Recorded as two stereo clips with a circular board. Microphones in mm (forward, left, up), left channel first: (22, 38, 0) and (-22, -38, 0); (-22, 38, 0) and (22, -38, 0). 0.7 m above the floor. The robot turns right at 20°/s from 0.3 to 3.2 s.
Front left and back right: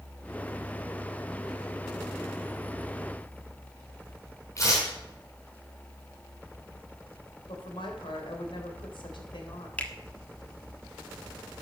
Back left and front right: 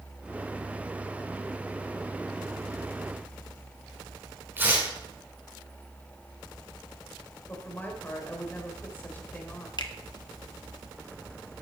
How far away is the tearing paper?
About 5 m.